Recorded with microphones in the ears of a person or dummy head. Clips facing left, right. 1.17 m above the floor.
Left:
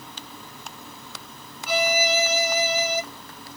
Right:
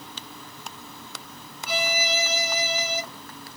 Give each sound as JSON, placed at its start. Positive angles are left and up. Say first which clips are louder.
{"t": 1.7, "sound": "a violin", "louder": "left 5 dB", "side_deg": 45, "distance_m": 0.7}